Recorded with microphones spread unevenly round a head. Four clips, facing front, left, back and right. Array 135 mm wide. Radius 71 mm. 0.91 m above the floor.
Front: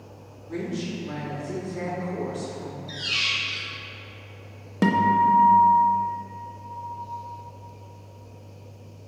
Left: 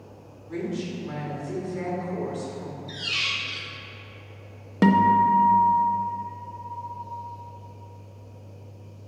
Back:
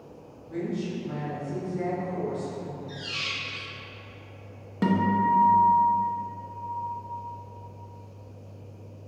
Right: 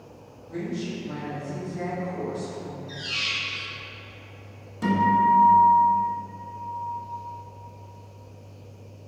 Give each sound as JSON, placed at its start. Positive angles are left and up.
{"t": 0.5, "sound": "a woman speaking", "azimuth_deg": 30, "distance_m": 1.8}
{"t": 2.9, "sound": "a squeak", "azimuth_deg": 105, "distance_m": 0.5}
{"t": 4.8, "sound": "a guitar", "azimuth_deg": 60, "distance_m": 0.6}